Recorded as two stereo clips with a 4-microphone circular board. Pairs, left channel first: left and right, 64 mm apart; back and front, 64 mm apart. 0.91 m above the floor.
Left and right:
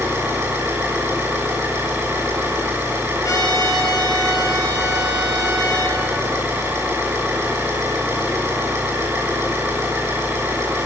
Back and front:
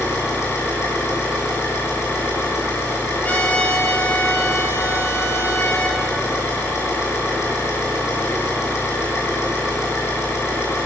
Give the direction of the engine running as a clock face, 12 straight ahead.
5 o'clock.